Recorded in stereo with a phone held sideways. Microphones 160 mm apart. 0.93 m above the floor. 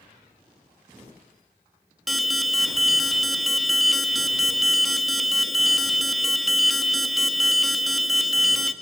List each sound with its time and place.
2.1 s an alarm: centre (ahead or behind), 0.8 m